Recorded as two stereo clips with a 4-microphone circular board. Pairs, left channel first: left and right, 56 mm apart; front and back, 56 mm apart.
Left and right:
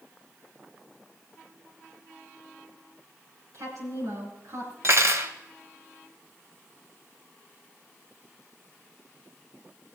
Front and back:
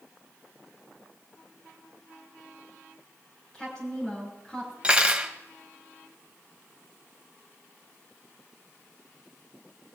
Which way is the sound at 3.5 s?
75° right.